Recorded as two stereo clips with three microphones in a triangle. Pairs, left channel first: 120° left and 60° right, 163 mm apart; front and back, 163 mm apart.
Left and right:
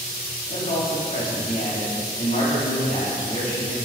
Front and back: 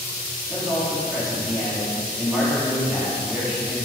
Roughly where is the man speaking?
Left.